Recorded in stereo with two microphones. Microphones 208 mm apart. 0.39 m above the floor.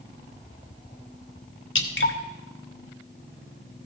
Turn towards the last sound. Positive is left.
turn(degrees=70)  # may be behind; listen again after turning